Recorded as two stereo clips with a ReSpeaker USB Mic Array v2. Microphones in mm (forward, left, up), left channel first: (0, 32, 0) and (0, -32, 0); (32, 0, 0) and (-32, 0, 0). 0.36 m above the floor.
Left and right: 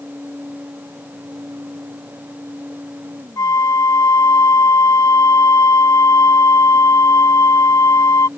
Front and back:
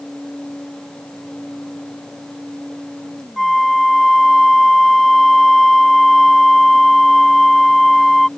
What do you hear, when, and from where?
3.4 s a flute: 85° left